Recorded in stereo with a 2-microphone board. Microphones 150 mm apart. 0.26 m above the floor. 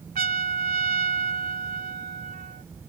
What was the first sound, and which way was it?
A trumpet, 80° right.